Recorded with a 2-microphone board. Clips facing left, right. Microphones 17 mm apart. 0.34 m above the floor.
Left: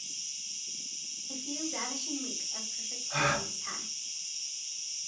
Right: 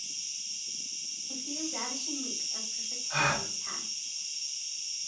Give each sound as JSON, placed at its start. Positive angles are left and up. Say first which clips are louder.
{"t": 0.0, "sound": "an insect", "louder": "right 2 dB", "side_deg": -35, "distance_m": 2.0}
{"t": 1.3, "sound": "a woman speaking", "louder": "even", "side_deg": 15, "distance_m": 1.3}
{"t": 3.1, "sound": "a gasp", "louder": "right 1 dB", "side_deg": -20, "distance_m": 3.0}